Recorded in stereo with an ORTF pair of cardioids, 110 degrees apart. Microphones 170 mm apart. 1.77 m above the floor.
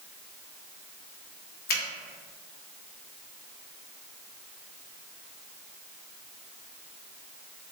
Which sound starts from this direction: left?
A finger snap, at 1.7 s.